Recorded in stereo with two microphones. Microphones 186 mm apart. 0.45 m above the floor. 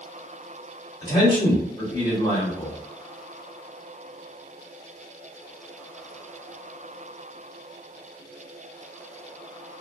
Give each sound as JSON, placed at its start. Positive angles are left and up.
{"t": 1.0, "sound": "a man speaking", "side_deg": 25, "distance_m": 1.8}